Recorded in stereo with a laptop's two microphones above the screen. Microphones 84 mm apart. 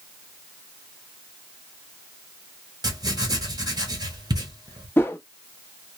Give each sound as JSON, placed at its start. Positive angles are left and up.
{"t": 2.8, "sound": "writing", "side_deg": -50, "distance_m": 1.0}
{"t": 5.0, "sound": "a whoosh", "side_deg": 25, "distance_m": 0.6}